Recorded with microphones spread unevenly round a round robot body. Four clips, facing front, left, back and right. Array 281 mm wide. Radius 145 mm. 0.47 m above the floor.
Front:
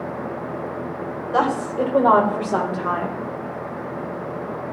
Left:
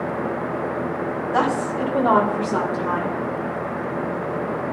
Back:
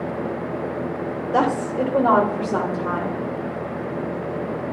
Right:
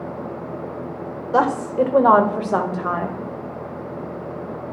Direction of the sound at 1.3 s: 110° right.